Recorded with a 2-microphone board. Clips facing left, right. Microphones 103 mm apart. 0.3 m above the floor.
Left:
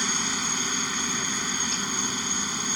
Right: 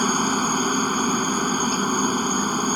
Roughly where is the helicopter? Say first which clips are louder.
Right 10 dB; right.